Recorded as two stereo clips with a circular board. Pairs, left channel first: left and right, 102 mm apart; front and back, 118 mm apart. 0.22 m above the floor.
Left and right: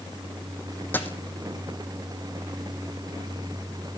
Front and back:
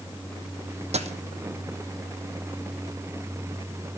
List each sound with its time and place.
0.9 s a dropped coin: 160° left, 0.9 m